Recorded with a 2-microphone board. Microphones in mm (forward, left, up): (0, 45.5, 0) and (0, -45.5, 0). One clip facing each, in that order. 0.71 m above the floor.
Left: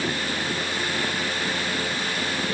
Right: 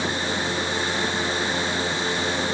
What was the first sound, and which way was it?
Only background noise.